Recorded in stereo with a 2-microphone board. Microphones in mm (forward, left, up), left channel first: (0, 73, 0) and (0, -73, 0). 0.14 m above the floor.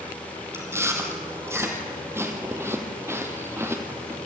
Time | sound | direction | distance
0.5 | chewing | 15° right (ahead or behind) | 1.9 m